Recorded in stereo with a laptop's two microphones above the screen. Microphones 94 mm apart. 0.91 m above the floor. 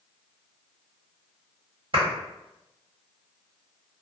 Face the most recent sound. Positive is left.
turn(degrees=-60)  # may be behind; listen again after turning